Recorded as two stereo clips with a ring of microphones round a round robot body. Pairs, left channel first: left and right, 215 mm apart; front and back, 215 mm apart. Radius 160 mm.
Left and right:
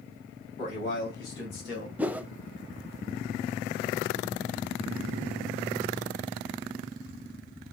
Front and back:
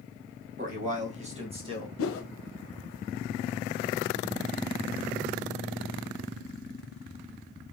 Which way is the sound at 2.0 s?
5° right.